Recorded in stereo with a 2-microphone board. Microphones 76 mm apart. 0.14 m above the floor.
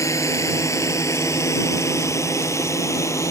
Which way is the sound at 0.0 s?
45° left (ahead or behind).